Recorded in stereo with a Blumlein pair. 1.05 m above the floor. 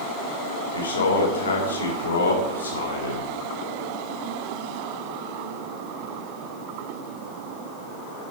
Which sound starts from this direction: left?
A man speaking, at 0.7 s.